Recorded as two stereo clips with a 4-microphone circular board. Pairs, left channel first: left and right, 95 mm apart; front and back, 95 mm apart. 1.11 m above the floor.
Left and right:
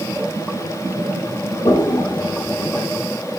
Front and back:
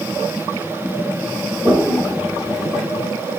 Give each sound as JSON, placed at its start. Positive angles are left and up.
{"t": 1.6, "sound": "a toilet flushing", "azimuth_deg": 95, "distance_m": 0.9}